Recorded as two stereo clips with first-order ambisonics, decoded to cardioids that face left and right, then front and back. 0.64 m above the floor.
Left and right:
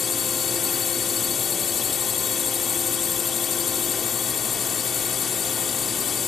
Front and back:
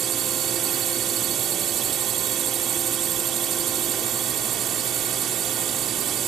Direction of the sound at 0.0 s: 145° left.